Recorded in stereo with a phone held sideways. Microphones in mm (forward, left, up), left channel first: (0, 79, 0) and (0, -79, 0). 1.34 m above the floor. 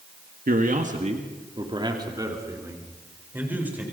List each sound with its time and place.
0.5 s a man speaking: 65° right (ahead or behind), 1.6 m; by 3.8 s 10° right (ahead or behind), 4.5 m